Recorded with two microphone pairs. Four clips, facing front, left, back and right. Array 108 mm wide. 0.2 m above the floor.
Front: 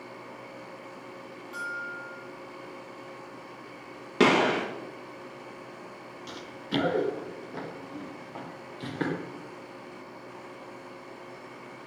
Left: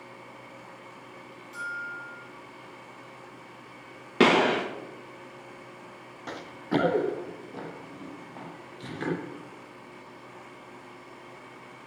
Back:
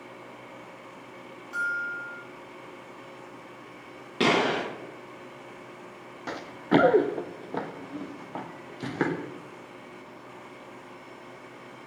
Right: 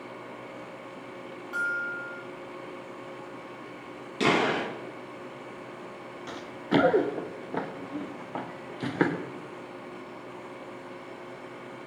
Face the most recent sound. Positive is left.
turn(degrees=-120)